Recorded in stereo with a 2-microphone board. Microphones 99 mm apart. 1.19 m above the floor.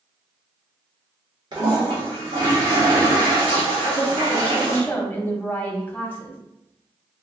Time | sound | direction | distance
1.5 | a toilet flushing | 50° right (ahead or behind) | 1.4 m
3.8 | a woman speaking | 20° left (ahead or behind) | 0.8 m